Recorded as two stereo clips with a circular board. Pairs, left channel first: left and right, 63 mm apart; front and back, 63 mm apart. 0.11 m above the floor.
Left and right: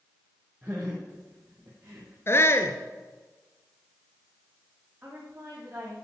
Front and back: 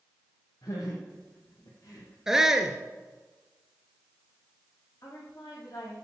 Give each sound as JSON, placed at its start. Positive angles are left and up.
{"t": 0.6, "sound": "laughter", "azimuth_deg": -25, "distance_m": 5.5}
{"t": 2.3, "sound": "a shout", "azimuth_deg": 100, "distance_m": 1.5}
{"t": 5.0, "sound": "a woman speaking", "azimuth_deg": -30, "distance_m": 7.5}